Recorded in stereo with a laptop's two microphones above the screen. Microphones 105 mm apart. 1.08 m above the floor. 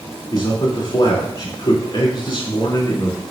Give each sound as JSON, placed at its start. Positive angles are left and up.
{"t": 0.3, "sound": "a man speaking", "side_deg": 50, "distance_m": 2.5}